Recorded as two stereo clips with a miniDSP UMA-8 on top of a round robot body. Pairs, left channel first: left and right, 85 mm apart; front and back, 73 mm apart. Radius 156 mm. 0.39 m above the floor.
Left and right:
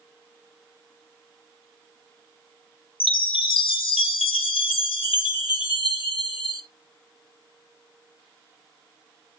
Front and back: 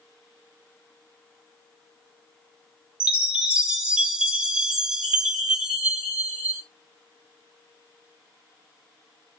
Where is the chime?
105° left, 0.8 m.